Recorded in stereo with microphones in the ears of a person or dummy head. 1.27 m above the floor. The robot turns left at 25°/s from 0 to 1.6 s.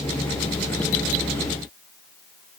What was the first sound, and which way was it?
Only background noise.